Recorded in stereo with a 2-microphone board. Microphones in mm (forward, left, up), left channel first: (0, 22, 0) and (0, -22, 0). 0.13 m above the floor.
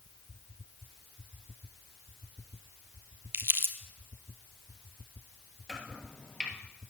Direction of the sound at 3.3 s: 70° right (ahead or behind).